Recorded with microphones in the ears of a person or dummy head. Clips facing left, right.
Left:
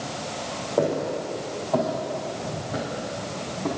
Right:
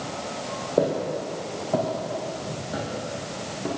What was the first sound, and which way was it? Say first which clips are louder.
Footsteps: even; 20° right (ahead or behind).